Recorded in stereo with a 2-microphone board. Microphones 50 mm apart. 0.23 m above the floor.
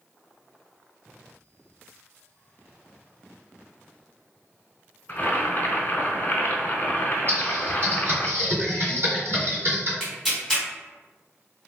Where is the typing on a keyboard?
45° right (ahead or behind), 1.7 m.